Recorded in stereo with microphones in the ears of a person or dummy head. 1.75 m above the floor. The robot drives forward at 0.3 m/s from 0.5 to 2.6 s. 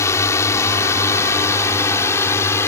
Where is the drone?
20° left (ahead or behind); by 2.7 s 15° left (ahead or behind).